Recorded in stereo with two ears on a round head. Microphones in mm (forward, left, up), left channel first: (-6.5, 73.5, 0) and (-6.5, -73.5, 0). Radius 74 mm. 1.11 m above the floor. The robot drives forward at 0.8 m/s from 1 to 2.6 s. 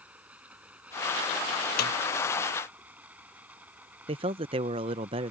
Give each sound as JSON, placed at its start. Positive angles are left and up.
{"t": 0.0, "sound": "running water", "side_deg": -10}
{"t": 1.8, "sound": "a snare drum", "side_deg": 65}
{"t": 4.1, "sound": "a man speaking", "side_deg": -30}